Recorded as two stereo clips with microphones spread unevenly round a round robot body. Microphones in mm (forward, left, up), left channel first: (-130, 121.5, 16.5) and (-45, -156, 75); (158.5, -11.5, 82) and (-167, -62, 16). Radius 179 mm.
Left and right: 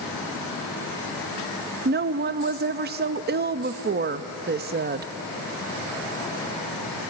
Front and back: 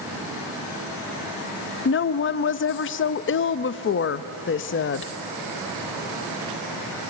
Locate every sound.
1.9 s a woman speaking: 30° right, 0.6 m